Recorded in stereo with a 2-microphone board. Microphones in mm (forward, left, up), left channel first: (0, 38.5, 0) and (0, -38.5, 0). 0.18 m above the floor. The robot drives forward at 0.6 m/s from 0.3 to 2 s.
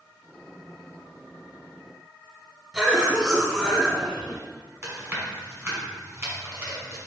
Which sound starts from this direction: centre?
A cough, at 2.7 s.